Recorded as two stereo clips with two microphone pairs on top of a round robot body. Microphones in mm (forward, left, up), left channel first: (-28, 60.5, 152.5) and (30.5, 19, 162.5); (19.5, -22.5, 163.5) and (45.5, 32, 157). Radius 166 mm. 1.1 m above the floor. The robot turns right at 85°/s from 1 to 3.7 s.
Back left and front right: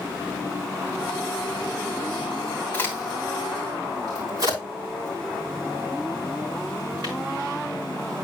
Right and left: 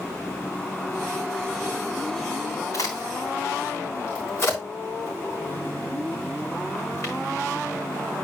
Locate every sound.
2.7 s a crack: 155° right, 3.5 m; by 7.1 s 75° right, 3.5 m